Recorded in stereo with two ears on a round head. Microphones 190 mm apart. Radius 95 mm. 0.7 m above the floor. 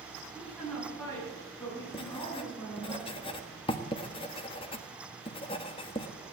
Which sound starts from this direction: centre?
A woman speaking, at 0.3 s.